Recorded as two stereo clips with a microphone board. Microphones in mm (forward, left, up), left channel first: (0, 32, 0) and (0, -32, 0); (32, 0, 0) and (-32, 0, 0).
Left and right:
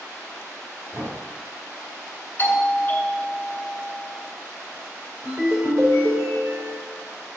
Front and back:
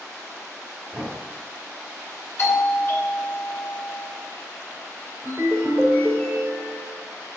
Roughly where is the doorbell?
Ahead left.